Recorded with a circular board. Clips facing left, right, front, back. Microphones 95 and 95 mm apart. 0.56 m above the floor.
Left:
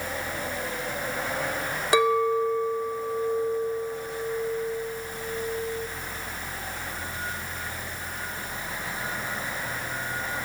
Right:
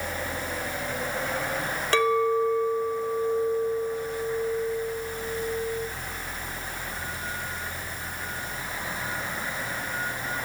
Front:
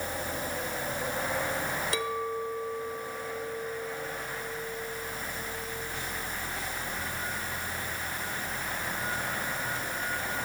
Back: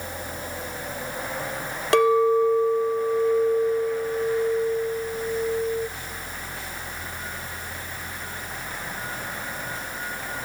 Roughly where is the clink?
Behind.